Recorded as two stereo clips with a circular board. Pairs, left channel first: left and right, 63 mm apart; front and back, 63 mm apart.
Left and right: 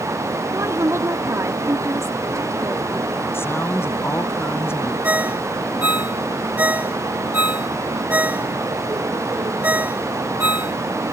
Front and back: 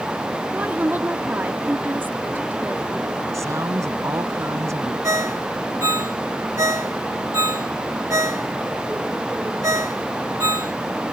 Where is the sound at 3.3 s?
140° left.